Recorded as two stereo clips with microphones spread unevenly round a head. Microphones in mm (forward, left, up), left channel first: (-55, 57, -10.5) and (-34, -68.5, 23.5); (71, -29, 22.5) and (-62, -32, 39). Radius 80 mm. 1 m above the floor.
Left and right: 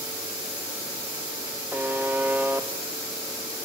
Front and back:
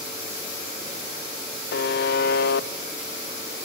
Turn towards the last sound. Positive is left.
turn(degrees=0)